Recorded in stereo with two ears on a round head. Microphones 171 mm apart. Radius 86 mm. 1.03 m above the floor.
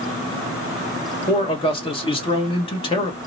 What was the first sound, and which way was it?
A man speaking, 30° left (ahead or behind).